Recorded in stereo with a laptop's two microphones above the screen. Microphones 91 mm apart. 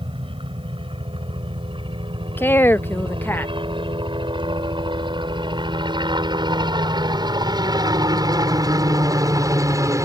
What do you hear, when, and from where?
0.0 s a helicopter: 75° right (ahead or behind); by 10.1 s 35° right (ahead or behind)
2.4 s a woman speaking: 25° left (ahead or behind)